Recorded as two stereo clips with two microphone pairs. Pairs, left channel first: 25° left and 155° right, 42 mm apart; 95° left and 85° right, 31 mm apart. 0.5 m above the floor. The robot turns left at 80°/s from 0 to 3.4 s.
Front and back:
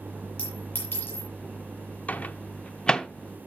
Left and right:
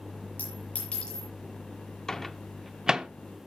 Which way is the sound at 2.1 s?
40° left.